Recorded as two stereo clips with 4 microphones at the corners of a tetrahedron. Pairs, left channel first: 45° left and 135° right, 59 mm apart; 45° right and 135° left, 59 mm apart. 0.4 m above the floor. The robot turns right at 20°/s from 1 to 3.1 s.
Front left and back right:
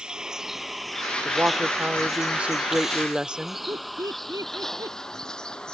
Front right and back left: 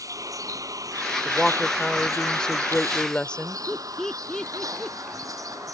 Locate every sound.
0.0 s a vehicle: 150° left; by 5.7 s 120° left
1.2 s a woman speaking: 125° right; by 3.6 s 85° right
3.7 s laughter: 125° right